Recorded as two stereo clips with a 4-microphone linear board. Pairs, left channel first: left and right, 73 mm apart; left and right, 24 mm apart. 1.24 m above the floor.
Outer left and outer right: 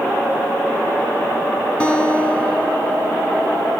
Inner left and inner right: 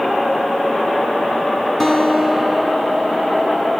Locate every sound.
1.8 s a guitar: 10° left (ahead or behind), 2.5 m